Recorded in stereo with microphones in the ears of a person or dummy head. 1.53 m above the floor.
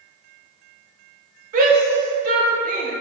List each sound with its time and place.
1.5 s a shout: 45° right (ahead or behind), 1.6 m